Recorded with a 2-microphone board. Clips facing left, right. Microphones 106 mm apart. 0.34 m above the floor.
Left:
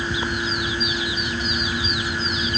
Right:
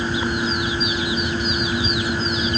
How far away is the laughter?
No laughter in this recording.